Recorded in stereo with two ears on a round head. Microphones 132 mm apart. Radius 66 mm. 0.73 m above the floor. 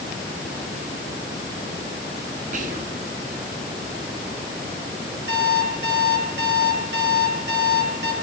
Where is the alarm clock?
70° right (ahead or behind), 10 m.